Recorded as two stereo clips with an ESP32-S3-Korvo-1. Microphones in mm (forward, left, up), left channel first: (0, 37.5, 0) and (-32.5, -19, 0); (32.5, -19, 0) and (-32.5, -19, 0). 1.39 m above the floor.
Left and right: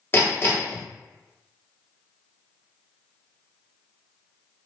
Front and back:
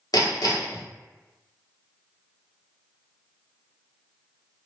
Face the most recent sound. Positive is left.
turn(degrees=5)